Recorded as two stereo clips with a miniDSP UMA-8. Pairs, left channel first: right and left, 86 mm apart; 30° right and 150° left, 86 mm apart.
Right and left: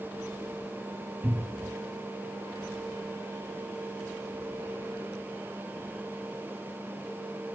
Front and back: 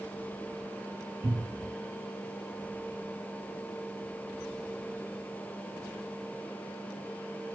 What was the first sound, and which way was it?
A cupboard door, 150° left.